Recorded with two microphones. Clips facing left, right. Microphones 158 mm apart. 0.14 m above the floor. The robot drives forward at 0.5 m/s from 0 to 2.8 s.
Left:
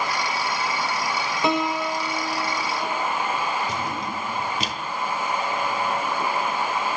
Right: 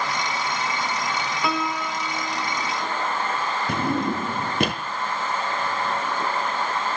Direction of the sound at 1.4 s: 25° left (ahead or behind).